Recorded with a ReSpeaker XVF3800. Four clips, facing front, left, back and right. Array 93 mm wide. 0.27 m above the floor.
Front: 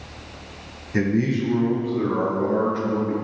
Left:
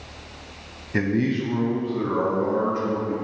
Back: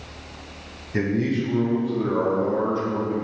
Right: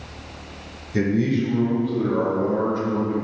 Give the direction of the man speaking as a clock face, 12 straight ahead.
9 o'clock.